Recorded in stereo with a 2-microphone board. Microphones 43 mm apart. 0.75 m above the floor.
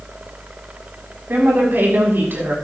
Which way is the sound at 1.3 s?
55° right (ahead or behind).